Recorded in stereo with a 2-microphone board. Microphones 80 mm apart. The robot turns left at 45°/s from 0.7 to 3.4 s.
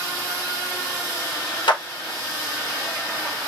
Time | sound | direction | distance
1.7 | a clap | 80° left | 1.0 m